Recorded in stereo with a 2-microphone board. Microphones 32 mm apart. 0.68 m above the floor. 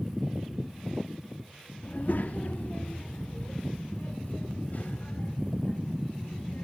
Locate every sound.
1.8 s a child speaking: 55° left (ahead or behind), 0.8 m